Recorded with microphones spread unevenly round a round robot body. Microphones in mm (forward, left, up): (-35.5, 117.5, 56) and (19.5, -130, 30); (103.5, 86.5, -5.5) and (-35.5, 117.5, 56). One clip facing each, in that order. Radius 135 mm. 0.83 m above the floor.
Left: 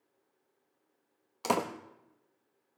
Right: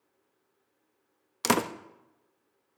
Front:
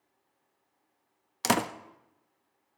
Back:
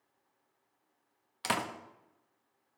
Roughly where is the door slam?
Ahead.